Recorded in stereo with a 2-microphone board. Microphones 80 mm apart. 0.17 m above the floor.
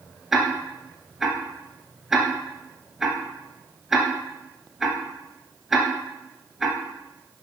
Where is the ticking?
5° right (ahead or behind), 1.5 m.